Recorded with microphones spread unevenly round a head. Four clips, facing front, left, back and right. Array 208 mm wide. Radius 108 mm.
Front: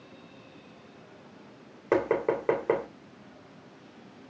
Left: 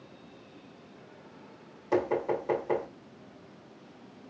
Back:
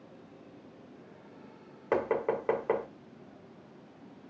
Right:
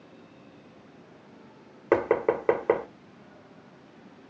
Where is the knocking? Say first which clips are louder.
Right 5 dB, front 4 dB; 65° right, 3 m.